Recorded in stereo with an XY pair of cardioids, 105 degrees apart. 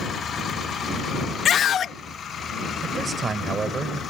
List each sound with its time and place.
1.4 s a scream: 55° left
2.8 s a man speaking: 35° right